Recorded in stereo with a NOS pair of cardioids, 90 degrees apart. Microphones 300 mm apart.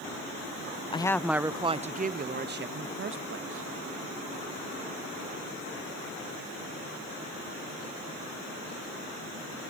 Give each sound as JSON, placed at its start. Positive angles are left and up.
{"t": 0.9, "sound": "a woman speaking", "azimuth_deg": 15, "distance_m": 0.6}